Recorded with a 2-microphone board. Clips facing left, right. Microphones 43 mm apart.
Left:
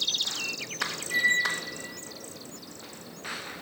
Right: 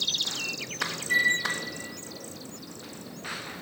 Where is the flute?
80° right, 3 m.